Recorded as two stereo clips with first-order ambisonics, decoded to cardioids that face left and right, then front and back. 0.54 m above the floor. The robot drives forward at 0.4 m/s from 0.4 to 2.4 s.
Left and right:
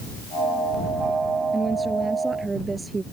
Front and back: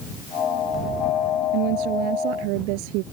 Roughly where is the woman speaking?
Behind.